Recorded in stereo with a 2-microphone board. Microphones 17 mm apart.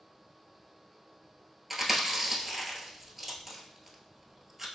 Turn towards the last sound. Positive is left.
turn(degrees=-5)  # may be behind; listen again after turning